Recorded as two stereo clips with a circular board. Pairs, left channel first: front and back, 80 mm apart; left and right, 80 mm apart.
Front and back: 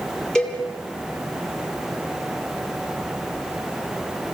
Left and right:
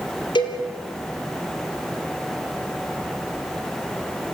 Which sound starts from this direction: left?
A cowbell, at 0.3 s.